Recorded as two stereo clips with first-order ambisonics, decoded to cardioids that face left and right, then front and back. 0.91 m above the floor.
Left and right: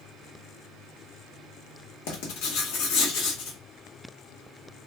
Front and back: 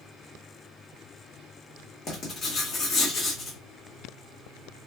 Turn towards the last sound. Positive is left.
turn(degrees=65)